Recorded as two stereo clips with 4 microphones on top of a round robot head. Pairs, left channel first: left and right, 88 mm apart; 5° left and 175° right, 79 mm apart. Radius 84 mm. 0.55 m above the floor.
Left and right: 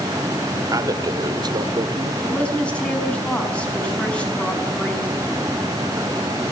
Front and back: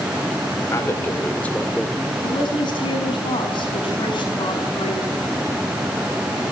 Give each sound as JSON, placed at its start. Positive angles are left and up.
{"t": 0.7, "sound": "a man speaking", "azimuth_deg": -50, "distance_m": 2.5}
{"t": 2.2, "sound": "a woman speaking", "azimuth_deg": 15, "distance_m": 6.0}